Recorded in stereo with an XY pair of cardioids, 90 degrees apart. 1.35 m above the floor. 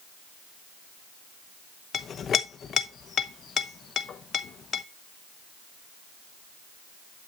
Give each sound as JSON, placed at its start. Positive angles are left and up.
{"t": 1.9, "sound": "a clink", "azimuth_deg": 60, "distance_m": 0.9}